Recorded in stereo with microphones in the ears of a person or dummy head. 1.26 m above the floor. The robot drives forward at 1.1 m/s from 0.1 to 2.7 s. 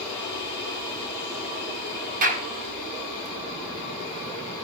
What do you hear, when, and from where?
2.2 s a clap: 45° right (ahead or behind), 5.5 m